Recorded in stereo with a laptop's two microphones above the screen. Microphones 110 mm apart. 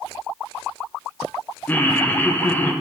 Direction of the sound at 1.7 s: 15° left (ahead or behind).